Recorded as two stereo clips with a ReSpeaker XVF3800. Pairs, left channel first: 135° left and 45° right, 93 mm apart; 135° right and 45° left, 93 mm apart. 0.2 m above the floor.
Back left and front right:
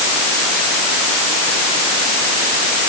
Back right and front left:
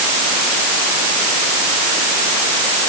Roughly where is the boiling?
No boiling in this recording.